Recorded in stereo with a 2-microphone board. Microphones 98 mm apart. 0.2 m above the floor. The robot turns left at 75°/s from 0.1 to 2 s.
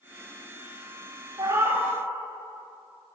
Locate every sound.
1.4 s a cat meowing: 125° right, 0.9 m; by 1.9 s 165° right, 0.9 m